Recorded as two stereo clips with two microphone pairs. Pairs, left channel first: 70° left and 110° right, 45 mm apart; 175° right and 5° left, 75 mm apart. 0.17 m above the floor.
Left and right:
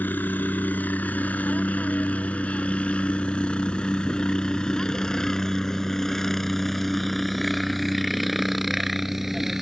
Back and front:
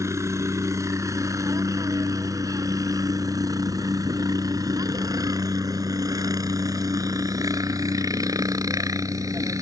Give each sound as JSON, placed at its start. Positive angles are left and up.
{"t": 0.0, "sound": "a helicopter", "azimuth_deg": 40}